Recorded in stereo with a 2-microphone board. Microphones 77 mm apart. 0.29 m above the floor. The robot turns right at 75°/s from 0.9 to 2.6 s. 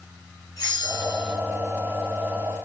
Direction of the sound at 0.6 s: 60° left.